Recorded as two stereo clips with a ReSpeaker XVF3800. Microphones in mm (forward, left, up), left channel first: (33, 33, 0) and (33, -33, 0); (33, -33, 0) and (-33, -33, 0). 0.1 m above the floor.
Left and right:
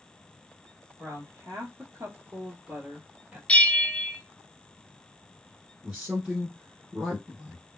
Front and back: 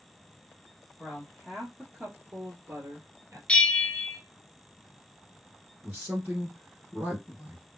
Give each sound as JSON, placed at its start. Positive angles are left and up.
{"t": 1.0, "sound": "a woman speaking", "azimuth_deg": -85, "distance_m": 2.0}
{"t": 3.5, "sound": "a bell", "azimuth_deg": 50, "distance_m": 0.6}
{"t": 5.8, "sound": "a man speaking", "azimuth_deg": -150, "distance_m": 1.7}